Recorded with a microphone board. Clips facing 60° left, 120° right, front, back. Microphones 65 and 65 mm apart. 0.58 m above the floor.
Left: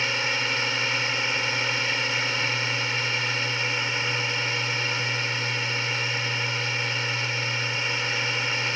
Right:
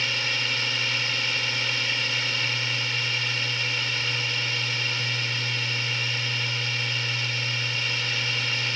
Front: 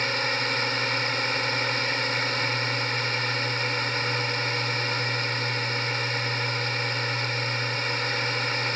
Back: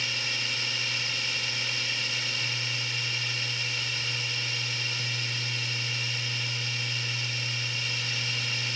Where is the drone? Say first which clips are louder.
Left 2 dB, front 7 dB; straight ahead.